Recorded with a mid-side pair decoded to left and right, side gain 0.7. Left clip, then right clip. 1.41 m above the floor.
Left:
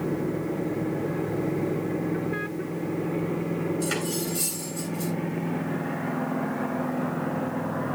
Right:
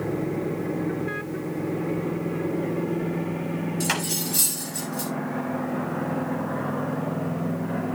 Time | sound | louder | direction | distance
3.8 | cutlery clinking | right 2 dB | 65° right | 5.5 m